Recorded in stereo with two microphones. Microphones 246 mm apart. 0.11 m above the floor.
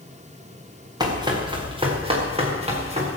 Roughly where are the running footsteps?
Centre.